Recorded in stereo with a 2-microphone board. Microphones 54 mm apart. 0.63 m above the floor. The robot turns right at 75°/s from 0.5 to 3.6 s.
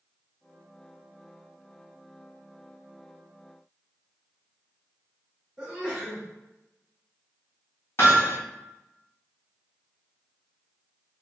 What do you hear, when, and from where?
5.6 s a sneeze: 10° right (ahead or behind), 1.6 m
8.0 s hammering: 50° left (ahead or behind), 1.7 m